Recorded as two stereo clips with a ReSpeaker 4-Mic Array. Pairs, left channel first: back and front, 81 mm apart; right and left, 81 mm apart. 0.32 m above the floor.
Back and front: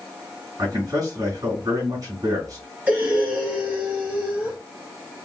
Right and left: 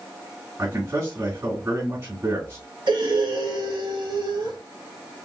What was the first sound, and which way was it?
A man speaking, 40° left.